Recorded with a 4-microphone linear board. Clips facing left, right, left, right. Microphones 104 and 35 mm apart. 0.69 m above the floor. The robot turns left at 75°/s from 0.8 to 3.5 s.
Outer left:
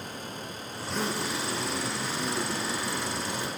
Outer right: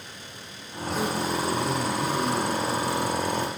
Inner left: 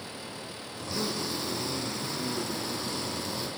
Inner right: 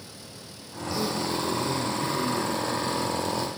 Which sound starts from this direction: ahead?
A zipper, at 0.8 s.